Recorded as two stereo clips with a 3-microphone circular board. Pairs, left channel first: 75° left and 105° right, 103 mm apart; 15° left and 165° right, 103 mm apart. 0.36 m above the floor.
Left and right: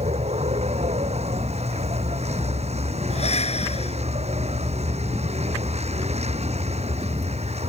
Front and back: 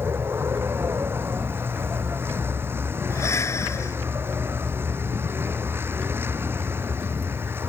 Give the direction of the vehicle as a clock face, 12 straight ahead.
3 o'clock.